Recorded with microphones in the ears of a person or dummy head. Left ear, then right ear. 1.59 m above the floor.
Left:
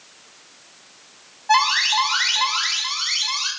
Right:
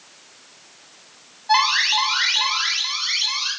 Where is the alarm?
20° left (ahead or behind), 9.5 m.